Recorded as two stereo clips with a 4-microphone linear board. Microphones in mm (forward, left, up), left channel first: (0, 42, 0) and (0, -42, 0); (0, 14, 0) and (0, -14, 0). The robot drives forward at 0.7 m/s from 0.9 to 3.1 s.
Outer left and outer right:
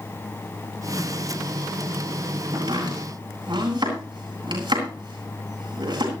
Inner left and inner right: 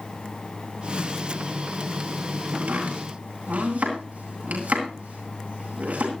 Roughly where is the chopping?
Right.